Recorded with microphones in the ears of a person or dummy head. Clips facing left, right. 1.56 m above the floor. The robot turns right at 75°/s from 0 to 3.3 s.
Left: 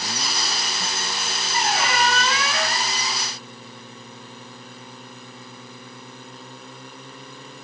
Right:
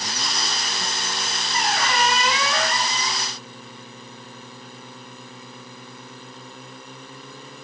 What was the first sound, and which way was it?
A squeak, 135° left.